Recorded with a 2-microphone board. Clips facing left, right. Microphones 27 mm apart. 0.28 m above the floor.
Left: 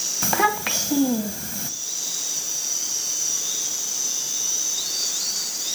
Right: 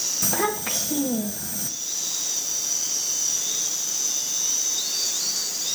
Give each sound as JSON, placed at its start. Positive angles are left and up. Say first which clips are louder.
{"t": 0.2, "sound": "a child speaking", "louder": "left 6 dB", "side_deg": 35, "distance_m": 1.3}